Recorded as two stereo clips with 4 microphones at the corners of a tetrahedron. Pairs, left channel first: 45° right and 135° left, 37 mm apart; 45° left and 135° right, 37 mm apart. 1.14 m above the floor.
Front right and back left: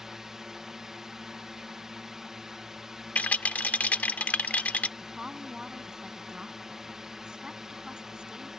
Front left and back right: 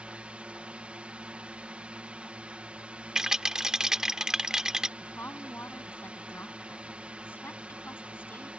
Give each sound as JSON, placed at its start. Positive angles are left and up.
{"t": 0.0, "sound": "a drone", "azimuth_deg": -160}
{"t": 3.1, "sound": "a rattle", "azimuth_deg": -65}
{"t": 5.0, "sound": "a woman speaking", "azimuth_deg": 60}